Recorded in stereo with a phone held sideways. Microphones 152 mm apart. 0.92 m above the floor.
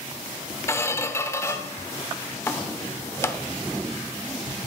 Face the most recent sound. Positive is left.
turn(degrees=20)  # may be behind; listen again after turning